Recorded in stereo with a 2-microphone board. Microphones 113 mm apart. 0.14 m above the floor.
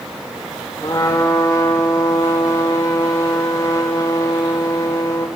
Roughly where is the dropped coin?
No dropped coin in this recording.